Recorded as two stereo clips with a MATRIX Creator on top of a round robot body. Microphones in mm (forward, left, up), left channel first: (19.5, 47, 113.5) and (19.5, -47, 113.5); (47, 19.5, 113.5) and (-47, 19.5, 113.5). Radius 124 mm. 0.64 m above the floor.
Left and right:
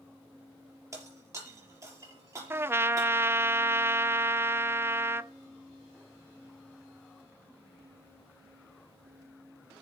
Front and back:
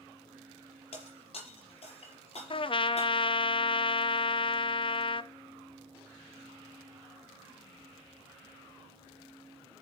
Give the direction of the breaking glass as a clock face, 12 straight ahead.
1 o'clock.